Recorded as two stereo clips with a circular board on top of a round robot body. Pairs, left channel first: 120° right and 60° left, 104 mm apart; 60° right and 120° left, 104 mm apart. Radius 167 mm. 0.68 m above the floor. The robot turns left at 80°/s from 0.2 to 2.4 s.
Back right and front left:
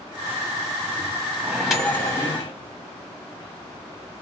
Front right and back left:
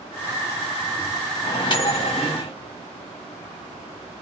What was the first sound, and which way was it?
A microwave, 5° right.